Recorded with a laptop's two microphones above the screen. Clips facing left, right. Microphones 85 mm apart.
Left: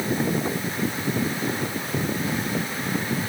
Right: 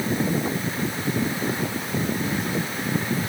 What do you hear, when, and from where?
Only background noise.